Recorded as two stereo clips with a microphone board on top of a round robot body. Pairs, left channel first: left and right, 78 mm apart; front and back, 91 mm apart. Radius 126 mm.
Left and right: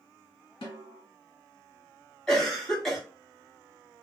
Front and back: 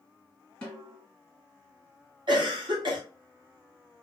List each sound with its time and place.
0.6 s a snare drum: 75° left, 1.7 m
2.3 s a cough: 170° left, 1.8 m